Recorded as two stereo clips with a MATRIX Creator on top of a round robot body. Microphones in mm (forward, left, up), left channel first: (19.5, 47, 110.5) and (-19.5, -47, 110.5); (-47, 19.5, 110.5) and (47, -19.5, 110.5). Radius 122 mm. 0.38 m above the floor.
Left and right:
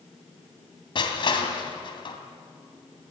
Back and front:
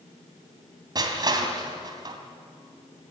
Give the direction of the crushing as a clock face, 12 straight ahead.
11 o'clock.